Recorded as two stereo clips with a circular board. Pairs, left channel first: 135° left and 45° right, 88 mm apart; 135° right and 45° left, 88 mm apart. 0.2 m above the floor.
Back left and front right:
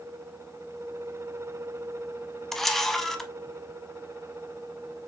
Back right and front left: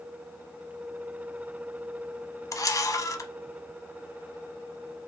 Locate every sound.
2.5 s a camera shutter: 140° right, 0.6 m